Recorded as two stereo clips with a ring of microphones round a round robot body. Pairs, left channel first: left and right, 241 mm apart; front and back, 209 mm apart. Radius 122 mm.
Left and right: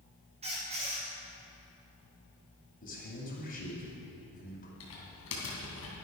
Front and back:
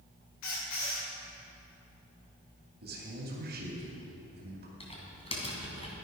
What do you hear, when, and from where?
0.4 s a squeak: 25° right, 4 m
2.8 s a man speaking: 145° left, 2.5 m
4.8 s typing on a keyboard: 60° left, 3 m